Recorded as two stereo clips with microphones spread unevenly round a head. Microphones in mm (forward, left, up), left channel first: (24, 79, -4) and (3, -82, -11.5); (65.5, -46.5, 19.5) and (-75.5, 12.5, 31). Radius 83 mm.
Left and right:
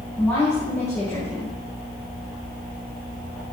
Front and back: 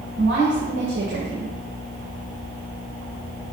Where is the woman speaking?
160° left, 2.5 m.